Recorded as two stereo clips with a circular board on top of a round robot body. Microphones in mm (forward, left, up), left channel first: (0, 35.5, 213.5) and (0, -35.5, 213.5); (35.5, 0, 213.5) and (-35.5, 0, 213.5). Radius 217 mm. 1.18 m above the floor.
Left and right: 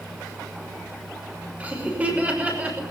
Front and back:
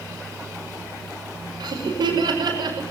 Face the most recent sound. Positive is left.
turn(degrees=-160)